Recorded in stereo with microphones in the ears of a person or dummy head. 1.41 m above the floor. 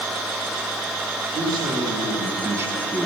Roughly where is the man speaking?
Right.